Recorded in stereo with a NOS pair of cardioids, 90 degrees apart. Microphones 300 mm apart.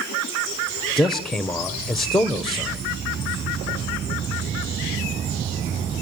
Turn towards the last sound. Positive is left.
turn(degrees=0)